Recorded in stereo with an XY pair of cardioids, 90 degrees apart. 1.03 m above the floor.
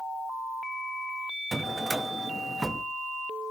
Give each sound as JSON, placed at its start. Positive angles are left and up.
{"t": 1.5, "sound": "a drawer", "azimuth_deg": -20, "distance_m": 0.7}